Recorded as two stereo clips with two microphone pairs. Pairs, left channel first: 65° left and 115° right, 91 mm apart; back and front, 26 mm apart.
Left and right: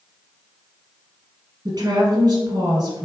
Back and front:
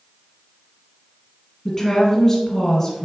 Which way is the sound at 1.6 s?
100° right.